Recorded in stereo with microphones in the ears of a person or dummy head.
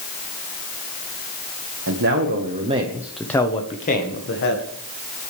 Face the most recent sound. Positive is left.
turn(degrees=60)  # may be behind; listen again after turning